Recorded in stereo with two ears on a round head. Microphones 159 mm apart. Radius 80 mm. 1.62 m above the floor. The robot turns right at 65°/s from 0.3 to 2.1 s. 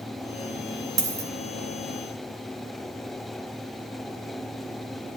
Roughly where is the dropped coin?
Right.